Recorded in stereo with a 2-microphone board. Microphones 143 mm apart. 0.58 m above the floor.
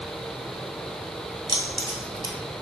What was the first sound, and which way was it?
Keys jangling, 35° right (ahead or behind).